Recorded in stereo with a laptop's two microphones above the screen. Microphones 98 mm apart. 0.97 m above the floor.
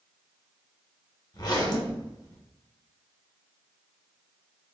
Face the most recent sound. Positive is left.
turn(degrees=45)  # may be behind; listen again after turning